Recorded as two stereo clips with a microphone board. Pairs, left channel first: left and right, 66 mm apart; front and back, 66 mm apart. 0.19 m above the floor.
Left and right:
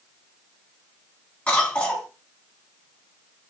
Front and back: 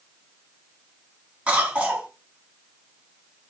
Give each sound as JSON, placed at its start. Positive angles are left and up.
{"t": 1.5, "sound": "a cough", "azimuth_deg": 140, "distance_m": 1.1}